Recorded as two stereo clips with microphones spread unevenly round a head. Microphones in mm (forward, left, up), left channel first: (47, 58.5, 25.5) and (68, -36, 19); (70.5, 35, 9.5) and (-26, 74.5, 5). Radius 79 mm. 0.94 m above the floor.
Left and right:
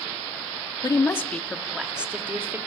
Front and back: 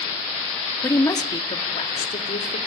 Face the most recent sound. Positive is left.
turn(degrees=-10)